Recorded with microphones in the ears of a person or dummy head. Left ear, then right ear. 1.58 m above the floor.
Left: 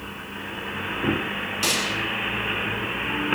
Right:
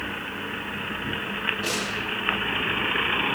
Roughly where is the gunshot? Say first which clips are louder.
Left 4 dB; left.